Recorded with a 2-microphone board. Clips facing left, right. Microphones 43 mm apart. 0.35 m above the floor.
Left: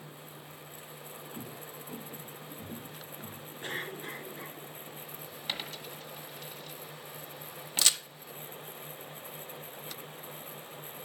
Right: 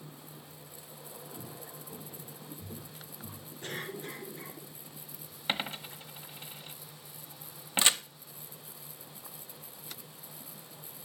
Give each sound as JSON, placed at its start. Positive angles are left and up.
{"t": 1.3, "sound": "footsteps", "side_deg": 65, "distance_m": 2.0}
{"t": 3.6, "sound": "a cough", "side_deg": 30, "distance_m": 5.5}
{"t": 5.5, "sound": "a dropped coin", "side_deg": -30, "distance_m": 1.0}
{"t": 7.8, "sound": "a crack", "side_deg": -25, "distance_m": 0.6}